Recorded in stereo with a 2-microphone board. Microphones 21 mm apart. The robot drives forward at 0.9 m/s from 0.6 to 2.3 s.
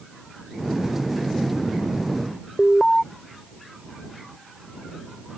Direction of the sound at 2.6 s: 20° left (ahead or behind).